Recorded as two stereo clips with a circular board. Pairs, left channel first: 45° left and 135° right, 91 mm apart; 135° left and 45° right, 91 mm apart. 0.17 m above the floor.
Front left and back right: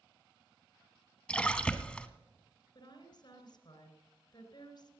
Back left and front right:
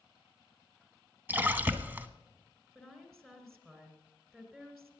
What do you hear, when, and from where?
1.3 s a splash: 20° right, 0.7 m
2.8 s a woman speaking: 50° left, 2.5 m